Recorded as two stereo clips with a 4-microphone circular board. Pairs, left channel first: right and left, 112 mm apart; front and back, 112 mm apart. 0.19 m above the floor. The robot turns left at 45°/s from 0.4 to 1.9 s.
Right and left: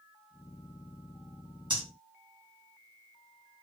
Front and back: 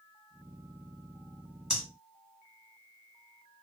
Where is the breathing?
90° left, 1.7 m; by 1.8 s 85° left, 1.7 m.